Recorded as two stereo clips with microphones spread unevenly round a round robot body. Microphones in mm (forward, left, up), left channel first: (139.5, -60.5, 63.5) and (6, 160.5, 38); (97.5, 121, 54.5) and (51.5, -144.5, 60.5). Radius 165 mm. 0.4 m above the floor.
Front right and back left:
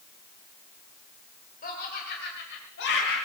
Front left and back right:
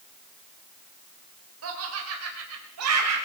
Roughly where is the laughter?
Behind right.